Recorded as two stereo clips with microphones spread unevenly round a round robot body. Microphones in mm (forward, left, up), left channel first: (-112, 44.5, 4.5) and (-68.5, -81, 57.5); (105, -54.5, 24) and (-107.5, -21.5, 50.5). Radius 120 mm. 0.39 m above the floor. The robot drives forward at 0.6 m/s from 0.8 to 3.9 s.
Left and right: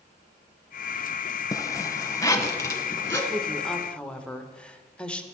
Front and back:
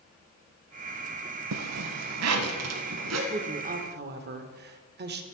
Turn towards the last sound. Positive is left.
turn(degrees=155)